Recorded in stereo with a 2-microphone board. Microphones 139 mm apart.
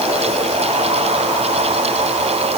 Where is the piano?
I don't hear a piano.